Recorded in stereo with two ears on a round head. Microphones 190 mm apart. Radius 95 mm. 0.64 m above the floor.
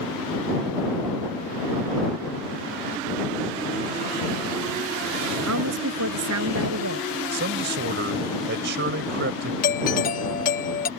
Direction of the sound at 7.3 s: 55° right (ahead or behind).